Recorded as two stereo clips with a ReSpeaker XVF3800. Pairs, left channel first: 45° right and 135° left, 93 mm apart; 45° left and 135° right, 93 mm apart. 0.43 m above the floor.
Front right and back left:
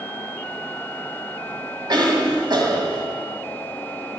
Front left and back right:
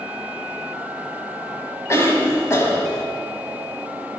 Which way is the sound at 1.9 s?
100° left.